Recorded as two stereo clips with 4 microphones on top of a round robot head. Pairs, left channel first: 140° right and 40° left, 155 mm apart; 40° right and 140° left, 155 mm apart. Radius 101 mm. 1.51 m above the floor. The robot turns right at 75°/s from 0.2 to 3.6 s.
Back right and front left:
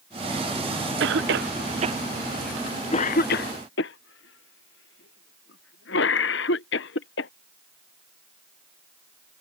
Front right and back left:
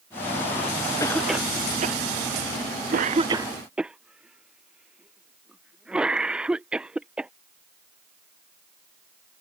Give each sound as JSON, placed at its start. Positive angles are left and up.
{"t": 1.0, "sound": "a cough", "azimuth_deg": 25}